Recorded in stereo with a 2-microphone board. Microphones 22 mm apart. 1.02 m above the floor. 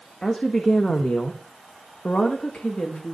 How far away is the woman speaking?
About 1.4 m.